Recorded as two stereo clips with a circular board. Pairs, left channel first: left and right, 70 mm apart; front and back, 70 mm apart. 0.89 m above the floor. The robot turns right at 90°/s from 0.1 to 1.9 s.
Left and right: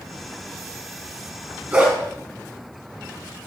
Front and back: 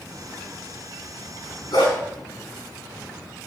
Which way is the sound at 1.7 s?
20° right.